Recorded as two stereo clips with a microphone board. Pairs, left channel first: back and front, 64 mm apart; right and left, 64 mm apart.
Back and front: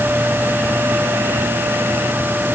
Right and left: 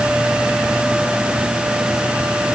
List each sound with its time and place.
Only background noise.